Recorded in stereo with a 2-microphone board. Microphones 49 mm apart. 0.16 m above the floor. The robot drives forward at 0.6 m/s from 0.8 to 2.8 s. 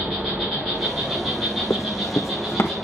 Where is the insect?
5° left (ahead or behind), 7 m.